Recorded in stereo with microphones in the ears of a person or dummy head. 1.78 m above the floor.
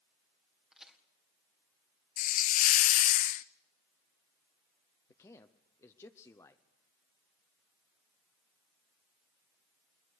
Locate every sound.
0.7 s a crack: 5° right (ahead or behind), 1.7 m
2.2 s a hiss: 55° left (ahead or behind), 0.5 m
5.1 s a man speaking: 15° left (ahead or behind), 0.7 m